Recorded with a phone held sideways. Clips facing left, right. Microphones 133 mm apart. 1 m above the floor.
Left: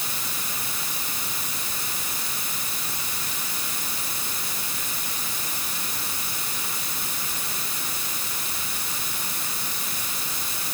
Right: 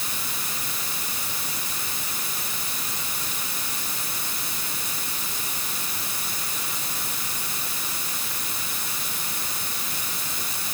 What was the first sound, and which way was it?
Only background noise.